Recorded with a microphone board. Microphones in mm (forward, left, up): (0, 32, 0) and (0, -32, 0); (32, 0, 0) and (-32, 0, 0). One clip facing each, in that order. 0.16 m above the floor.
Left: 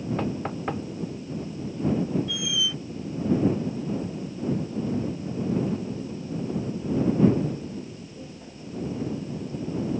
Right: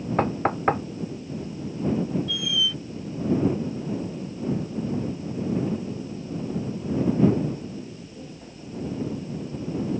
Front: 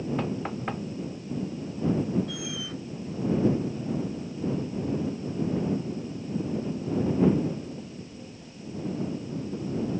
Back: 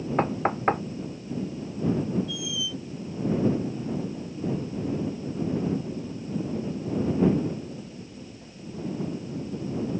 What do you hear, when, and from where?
0.2 s knocking: 135° right
2.3 s a squeak: 15° left